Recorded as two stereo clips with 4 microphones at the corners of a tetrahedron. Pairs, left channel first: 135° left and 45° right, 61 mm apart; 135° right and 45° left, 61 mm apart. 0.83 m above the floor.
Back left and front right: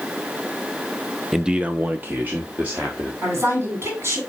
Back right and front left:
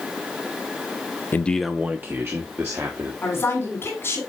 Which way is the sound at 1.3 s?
125° right.